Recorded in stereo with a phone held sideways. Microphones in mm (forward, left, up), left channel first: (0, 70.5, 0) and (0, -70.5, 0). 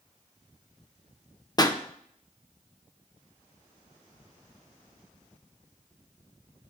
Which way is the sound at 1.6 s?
30° left (ahead or behind).